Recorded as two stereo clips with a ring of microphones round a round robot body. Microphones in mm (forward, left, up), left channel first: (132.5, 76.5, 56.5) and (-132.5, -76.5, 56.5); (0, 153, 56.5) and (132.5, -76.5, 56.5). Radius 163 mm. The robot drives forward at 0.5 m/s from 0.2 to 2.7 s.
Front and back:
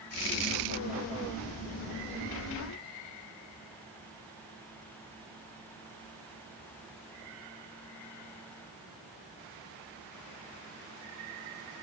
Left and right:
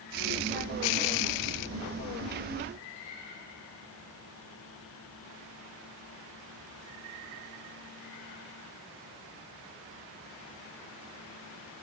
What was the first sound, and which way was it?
Only background noise.